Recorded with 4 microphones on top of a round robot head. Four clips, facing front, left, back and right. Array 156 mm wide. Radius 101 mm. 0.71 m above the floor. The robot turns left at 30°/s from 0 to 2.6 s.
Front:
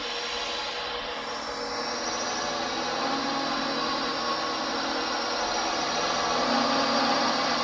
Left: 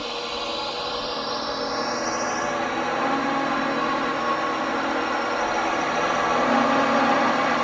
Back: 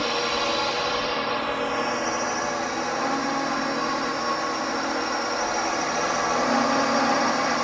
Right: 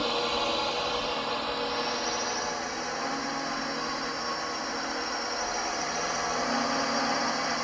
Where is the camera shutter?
I don't hear a camera shutter.